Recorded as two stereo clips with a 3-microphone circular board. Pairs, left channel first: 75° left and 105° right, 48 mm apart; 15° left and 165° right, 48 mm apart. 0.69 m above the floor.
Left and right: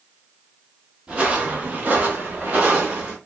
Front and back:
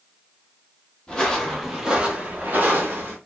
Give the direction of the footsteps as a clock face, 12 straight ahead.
2 o'clock.